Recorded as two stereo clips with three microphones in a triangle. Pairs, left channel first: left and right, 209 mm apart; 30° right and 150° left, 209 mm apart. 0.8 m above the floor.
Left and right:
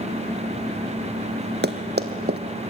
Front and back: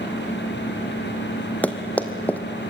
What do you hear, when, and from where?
1.6 s running footsteps: 110° right, 1.5 m